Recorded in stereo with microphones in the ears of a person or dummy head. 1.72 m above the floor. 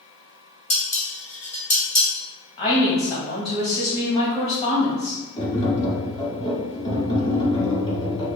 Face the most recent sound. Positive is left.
turn(degrees=30)  # may be behind; listen again after turning